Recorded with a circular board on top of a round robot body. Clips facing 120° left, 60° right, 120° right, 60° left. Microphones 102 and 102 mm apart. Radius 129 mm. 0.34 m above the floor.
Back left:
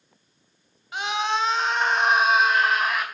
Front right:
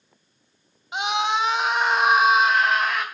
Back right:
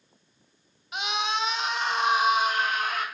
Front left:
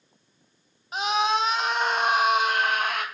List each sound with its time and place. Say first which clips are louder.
0.9 s a scream: front right 2 dB, front left 6 dB; 10° left, 3 m; by 3.0 s 35° left, 4 m